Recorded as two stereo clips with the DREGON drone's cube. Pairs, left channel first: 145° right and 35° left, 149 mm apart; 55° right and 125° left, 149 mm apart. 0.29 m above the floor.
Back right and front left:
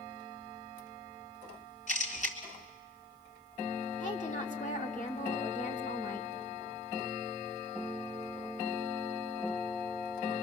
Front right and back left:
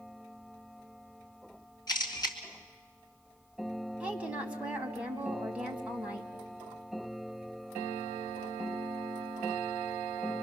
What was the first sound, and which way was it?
A camera shutter, 115° right.